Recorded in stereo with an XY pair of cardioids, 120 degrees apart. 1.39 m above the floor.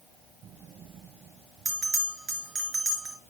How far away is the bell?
About 4 m.